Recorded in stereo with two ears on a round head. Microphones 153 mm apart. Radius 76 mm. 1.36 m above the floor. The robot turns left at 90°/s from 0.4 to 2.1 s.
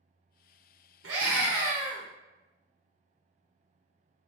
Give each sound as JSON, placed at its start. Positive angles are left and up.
{"t": 1.0, "sound": "a scream", "azimuth_deg": -105, "distance_m": 1.0}